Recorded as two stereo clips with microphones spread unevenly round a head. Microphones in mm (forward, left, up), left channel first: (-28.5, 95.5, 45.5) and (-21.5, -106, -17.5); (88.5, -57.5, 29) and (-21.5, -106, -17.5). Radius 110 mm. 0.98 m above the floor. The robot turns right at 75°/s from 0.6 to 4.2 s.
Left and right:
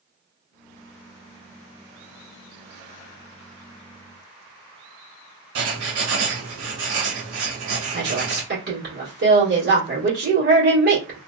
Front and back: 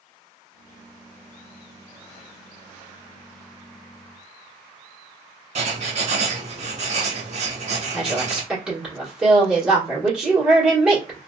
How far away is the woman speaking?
About 1.4 m.